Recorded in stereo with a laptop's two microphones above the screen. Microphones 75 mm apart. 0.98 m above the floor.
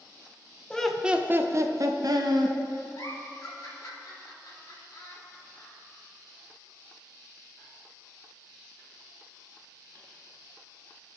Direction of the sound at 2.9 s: 70° left (ahead or behind).